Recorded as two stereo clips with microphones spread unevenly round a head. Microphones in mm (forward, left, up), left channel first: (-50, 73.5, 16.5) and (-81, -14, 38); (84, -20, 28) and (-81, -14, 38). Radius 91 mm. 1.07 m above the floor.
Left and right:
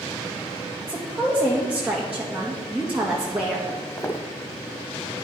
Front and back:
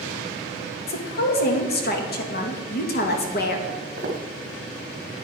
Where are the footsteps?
140° left, 1.8 m.